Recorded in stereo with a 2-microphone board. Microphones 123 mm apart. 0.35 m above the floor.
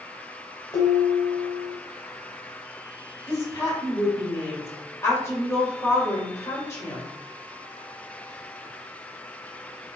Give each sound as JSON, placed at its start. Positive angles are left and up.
{"t": 0.7, "sound": "dishes clattering", "side_deg": 30, "distance_m": 1.5}
{"t": 3.3, "sound": "a woman speaking", "side_deg": 25, "distance_m": 1.6}